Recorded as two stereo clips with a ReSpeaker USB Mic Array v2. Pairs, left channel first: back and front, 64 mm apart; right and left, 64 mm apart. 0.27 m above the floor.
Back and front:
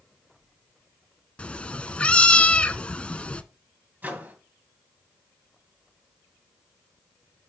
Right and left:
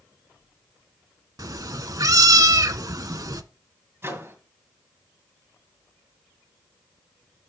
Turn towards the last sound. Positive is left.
turn(degrees=55)